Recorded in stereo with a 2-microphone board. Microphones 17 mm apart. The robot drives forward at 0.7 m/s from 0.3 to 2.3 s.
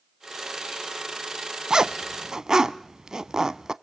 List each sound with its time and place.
1.7 s a zipper: 45° right (ahead or behind), 0.6 m; by 3.7 s 40° right (ahead or behind), 0.6 m